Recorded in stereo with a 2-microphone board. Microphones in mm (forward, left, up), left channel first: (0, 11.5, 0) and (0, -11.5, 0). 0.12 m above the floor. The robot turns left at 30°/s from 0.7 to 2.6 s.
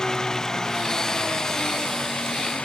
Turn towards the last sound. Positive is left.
turn(degrees=95)